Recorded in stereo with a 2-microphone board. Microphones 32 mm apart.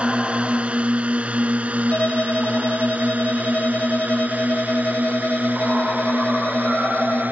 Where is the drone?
40° right (ahead or behind); by 7.3 s 70° right (ahead or behind).